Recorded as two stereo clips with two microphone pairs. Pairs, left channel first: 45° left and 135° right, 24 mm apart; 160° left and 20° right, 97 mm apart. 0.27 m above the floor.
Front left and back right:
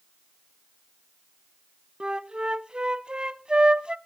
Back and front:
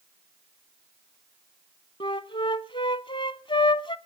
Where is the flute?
Straight behind, 0.9 m.